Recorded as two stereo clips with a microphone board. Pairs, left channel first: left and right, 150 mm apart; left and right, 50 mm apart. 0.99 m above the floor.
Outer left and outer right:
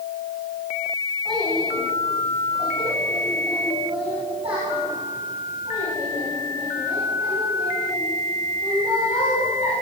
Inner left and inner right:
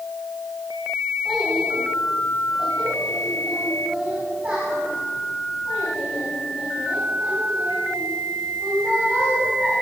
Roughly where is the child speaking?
Centre.